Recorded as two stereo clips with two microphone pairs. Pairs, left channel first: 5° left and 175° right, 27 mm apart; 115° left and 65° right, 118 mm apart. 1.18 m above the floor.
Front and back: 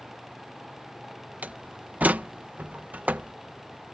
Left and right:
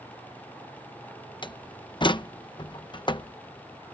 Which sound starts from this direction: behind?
A door slam, at 1.4 s.